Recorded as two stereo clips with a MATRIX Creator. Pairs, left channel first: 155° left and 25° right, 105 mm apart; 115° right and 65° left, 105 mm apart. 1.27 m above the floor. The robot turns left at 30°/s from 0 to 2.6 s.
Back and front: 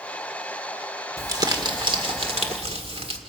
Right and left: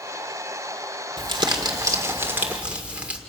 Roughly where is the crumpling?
Ahead left.